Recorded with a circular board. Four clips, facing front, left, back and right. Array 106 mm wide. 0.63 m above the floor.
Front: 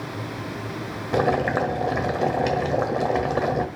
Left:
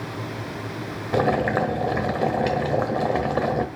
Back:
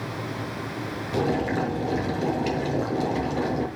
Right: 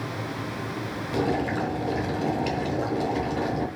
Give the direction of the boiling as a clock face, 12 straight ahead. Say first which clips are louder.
Left 5 dB, front 4 dB; 10 o'clock.